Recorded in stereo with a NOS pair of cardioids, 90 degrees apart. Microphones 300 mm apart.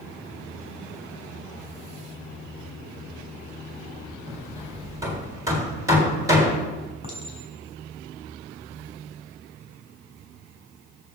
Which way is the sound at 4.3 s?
10° right.